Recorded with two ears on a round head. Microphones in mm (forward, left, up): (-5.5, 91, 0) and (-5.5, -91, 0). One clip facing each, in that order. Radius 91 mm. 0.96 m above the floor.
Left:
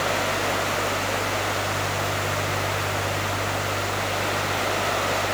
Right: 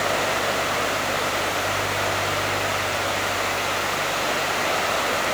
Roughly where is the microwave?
No microwave in this recording.